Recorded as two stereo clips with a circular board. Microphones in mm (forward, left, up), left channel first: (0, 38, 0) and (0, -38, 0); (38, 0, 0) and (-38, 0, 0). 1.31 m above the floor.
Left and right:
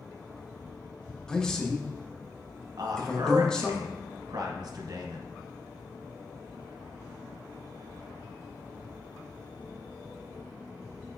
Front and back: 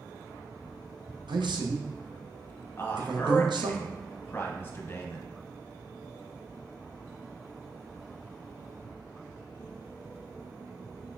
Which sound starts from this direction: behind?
A man speaking, at 1.3 s.